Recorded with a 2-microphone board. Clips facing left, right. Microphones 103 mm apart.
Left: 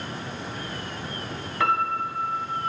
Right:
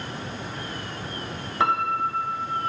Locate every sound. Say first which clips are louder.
1.6 s a piano: right 1 dB; 25° right (ahead or behind), 0.6 m